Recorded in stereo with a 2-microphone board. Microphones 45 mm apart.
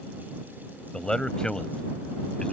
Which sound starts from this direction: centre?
A man speaking, at 0.9 s.